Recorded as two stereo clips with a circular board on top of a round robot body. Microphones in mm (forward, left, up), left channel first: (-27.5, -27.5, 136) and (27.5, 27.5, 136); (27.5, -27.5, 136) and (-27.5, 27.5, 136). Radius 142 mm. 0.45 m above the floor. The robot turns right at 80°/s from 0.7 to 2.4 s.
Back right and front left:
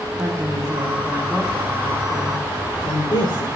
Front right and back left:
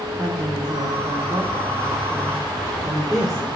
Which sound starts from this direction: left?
A woman speaking, at 0.2 s.